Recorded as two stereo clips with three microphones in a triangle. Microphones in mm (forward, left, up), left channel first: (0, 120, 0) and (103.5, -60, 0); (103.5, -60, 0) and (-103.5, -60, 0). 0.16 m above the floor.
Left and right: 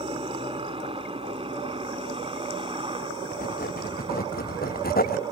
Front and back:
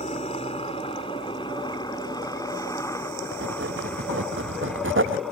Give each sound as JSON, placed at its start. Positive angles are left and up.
{"t": 0.0, "sound": "a helicopter", "azimuth_deg": -25}
{"t": 3.3, "sound": "writing", "azimuth_deg": 165}